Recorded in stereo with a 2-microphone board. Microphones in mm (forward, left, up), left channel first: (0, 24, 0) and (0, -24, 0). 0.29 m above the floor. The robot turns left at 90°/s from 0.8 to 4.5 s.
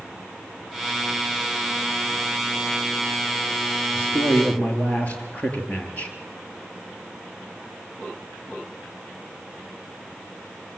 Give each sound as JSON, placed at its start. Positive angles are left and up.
{"t": 3.9, "sound": "a man speaking", "azimuth_deg": 85, "distance_m": 5.0}